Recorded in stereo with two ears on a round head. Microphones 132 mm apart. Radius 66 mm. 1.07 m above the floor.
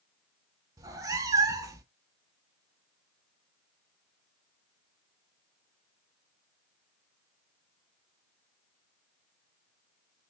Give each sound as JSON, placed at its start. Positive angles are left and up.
{"t": 0.8, "sound": "a cat meowing", "side_deg": -25, "distance_m": 0.6}